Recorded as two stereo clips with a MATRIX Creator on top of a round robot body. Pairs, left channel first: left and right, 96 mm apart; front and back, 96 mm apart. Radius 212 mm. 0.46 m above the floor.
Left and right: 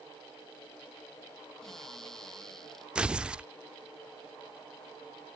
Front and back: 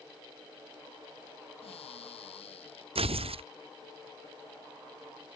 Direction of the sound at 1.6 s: 5° left.